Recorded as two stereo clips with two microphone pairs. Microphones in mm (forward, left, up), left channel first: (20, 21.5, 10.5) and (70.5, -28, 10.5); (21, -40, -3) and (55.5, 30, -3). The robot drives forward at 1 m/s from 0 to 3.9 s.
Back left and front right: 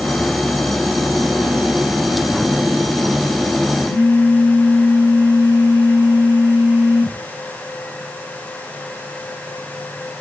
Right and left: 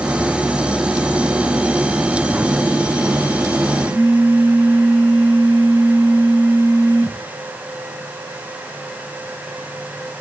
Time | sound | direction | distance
3.9 | a phone buzzing | 160° left | 6.5 m